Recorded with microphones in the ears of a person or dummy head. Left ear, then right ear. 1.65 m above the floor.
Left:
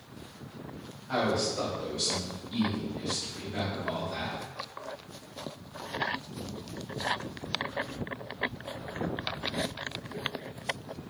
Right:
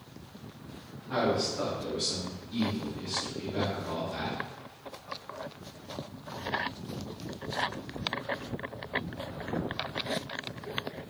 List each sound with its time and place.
1.1 s a man speaking: 50° left (ahead or behind), 1.4 m; by 4.4 s 75° left (ahead or behind), 5 m